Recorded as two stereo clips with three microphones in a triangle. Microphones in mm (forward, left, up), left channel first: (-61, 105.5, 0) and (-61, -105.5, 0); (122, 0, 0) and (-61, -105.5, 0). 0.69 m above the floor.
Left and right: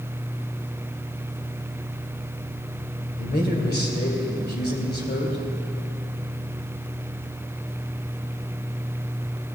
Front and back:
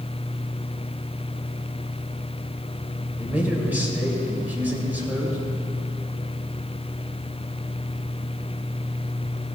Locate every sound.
3.2 s a man speaking: 130° left, 2.5 m